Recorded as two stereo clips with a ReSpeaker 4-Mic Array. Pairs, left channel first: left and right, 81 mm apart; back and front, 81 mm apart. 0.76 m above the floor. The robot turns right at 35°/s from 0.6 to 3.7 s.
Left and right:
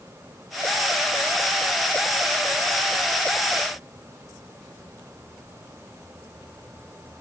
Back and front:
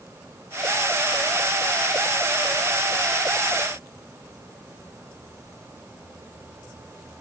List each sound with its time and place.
Only background noise.